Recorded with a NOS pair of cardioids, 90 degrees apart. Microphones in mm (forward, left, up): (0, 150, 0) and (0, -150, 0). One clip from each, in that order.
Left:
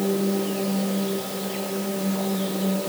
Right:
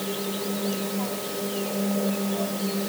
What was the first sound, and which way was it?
Only background noise.